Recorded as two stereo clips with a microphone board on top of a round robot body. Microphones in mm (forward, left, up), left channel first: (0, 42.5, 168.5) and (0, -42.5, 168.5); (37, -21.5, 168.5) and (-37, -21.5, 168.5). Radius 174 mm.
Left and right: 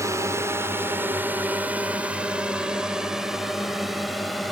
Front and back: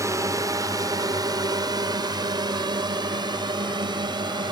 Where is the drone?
140° right; by 4.5 s straight behind.